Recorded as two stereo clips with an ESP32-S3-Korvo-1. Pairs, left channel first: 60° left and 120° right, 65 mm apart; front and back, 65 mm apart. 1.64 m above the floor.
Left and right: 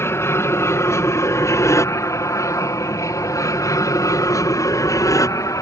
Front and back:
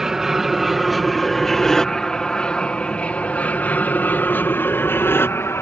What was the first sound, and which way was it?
An aircraft, 100° left.